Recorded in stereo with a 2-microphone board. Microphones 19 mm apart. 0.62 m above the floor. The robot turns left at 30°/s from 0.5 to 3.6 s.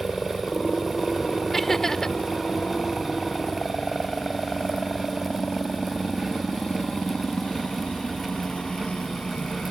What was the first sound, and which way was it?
A helicopter, 50° left (ahead or behind).